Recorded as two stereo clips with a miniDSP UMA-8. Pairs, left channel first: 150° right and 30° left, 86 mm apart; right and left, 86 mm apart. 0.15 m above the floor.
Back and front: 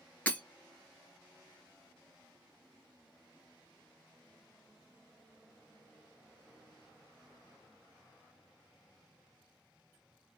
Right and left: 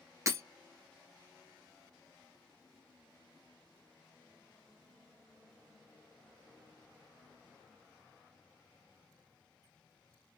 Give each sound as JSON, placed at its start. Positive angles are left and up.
{"t": 0.3, "sound": "breaking glass", "azimuth_deg": 135, "distance_m": 1.4}